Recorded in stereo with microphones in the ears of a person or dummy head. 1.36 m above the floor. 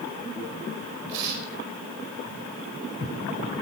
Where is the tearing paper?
65° right (ahead or behind), 4.5 m.